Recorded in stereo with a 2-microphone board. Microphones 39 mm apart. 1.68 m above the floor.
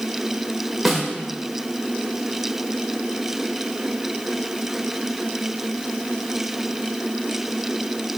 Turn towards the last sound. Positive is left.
turn(degrees=0)  # may be behind; listen again after turning